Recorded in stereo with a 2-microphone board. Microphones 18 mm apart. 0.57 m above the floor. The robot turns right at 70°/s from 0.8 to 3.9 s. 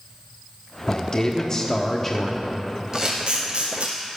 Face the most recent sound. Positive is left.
turn(degrees=-70)  # may be behind; listen again after turning